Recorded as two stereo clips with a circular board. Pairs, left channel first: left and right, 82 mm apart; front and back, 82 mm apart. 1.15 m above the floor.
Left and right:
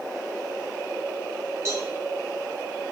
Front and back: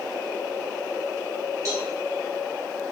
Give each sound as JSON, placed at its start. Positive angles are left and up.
{"t": 1.6, "sound": "a cowbell", "azimuth_deg": -140, "distance_m": 1.0}